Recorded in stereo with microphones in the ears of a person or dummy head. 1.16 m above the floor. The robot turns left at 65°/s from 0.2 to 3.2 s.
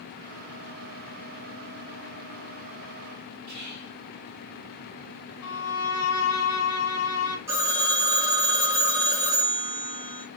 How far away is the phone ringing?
About 0.9 m.